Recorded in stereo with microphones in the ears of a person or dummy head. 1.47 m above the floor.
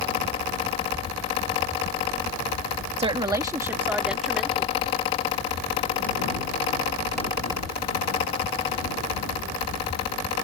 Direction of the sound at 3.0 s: 30° right (ahead or behind).